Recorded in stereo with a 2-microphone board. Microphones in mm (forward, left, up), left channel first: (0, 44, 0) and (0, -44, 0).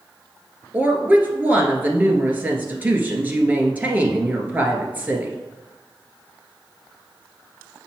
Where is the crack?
I don't hear a crack.